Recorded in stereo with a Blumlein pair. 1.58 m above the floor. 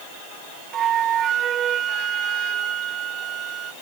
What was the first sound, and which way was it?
A flute, 25° right.